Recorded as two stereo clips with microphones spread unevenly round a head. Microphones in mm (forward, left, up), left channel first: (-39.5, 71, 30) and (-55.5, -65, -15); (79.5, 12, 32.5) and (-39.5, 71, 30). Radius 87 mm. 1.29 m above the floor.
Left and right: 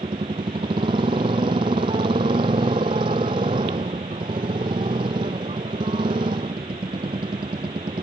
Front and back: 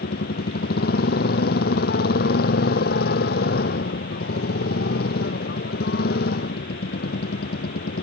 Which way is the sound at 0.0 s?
30° right.